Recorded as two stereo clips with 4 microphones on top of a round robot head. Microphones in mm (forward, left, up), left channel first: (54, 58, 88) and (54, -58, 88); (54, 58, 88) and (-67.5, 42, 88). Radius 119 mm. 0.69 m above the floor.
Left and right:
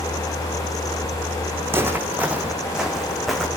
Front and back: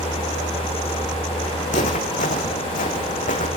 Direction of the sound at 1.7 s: 20° right.